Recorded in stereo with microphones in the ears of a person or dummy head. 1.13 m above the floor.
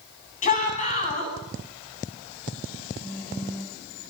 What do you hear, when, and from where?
0.4 s a shout: 40° left (ahead or behind), 9 m
3.0 s a phone buzzing: 15° left (ahead or behind), 3 m